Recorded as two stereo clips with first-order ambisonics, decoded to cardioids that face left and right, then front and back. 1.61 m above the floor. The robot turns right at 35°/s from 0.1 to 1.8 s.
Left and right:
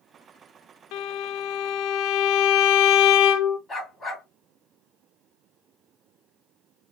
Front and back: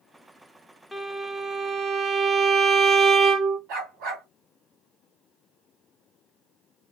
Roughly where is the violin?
Left.